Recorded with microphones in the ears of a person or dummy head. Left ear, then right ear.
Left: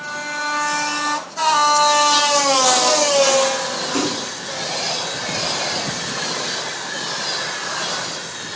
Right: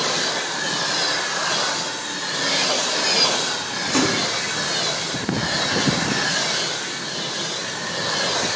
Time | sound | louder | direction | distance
3.9 | a splash | right 5 dB | 30° right (ahead or behind) | 4.5 m